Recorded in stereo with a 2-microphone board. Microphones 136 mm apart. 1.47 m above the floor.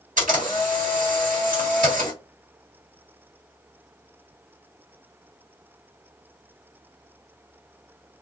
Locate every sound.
0.2 s a camera shutter: 80° right, 1.6 m